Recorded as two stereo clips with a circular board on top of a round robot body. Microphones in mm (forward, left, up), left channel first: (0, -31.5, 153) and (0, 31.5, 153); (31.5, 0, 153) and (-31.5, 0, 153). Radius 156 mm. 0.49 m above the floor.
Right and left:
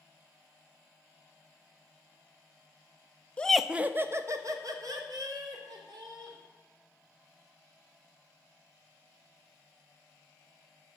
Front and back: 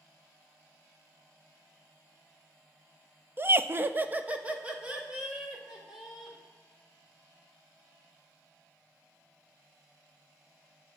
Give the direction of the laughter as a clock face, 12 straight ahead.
5 o'clock.